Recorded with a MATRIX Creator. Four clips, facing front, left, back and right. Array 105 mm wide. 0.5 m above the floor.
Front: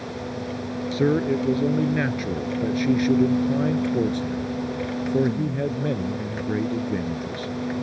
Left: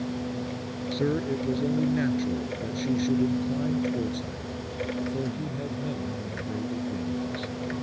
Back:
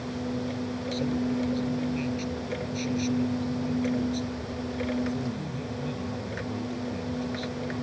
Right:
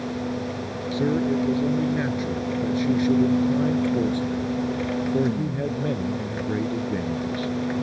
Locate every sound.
0.9 s a man speaking: straight ahead; by 7.5 s 40° right